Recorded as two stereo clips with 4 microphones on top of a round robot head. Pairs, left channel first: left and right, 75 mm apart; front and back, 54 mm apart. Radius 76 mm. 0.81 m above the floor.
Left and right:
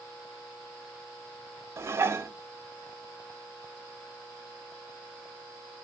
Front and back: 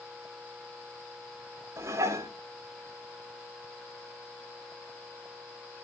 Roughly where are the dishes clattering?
Behind right.